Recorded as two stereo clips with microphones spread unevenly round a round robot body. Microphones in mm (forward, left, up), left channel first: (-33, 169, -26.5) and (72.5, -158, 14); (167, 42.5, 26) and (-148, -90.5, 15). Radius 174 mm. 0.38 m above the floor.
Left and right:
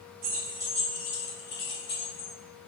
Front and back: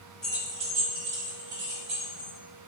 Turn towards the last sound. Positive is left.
turn(degrees=145)